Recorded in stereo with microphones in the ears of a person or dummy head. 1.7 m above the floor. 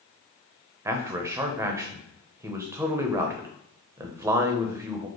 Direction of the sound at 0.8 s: 20° right (ahead or behind).